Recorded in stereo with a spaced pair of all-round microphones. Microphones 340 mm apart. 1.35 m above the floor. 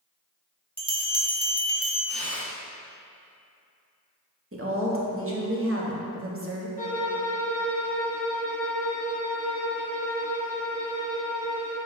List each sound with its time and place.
0.8 s a bell: 15° right (ahead or behind), 0.7 m
2.1 s tearing paper: 45° right (ahead or behind), 1.1 m
4.5 s a woman speaking: 40° right (ahead or behind), 0.8 m
6.8 s a violin: 20° left (ahead or behind), 1.1 m